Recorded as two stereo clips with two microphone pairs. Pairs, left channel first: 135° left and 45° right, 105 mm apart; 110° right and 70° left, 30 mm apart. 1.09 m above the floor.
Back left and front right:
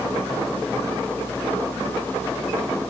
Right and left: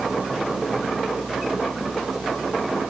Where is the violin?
No violin in this recording.